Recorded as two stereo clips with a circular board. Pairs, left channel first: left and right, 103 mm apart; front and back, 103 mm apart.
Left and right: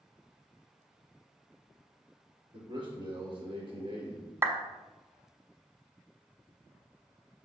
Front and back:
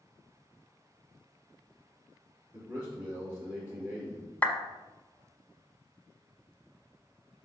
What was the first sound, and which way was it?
A man speaking, 115° right.